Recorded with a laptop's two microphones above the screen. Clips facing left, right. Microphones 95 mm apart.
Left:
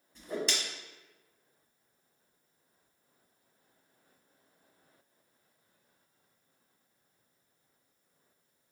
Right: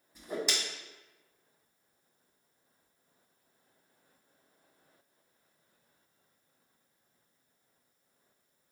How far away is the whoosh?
About 1.3 m.